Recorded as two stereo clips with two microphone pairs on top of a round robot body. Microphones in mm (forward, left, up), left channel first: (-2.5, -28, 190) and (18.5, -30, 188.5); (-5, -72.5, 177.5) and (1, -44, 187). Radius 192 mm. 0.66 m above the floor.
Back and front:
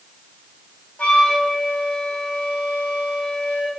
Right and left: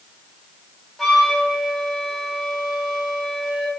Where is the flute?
170° left, 2 m.